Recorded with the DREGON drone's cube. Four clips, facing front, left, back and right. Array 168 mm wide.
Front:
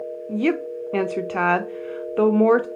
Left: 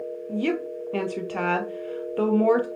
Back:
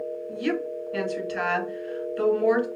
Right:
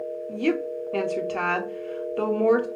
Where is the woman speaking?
5° left, 0.8 m.